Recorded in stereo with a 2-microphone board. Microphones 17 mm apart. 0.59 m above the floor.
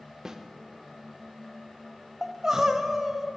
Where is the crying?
25° right (ahead or behind), 0.6 m.